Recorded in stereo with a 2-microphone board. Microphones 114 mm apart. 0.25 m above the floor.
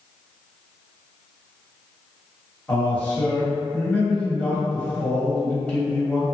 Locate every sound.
2.7 s a man speaking: 10° left (ahead or behind), 1.2 m